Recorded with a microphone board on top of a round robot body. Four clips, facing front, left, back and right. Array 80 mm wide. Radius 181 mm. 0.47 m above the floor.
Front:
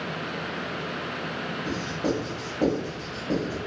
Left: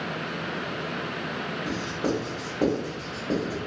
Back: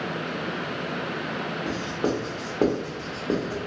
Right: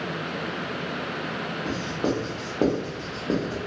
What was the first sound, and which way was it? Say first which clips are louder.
Writing: right 2 dB, back 1 dB; 150° right.